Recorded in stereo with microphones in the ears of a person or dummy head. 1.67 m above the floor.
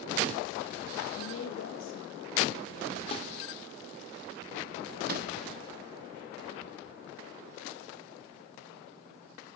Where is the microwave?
55° right (ahead or behind), 2.5 m.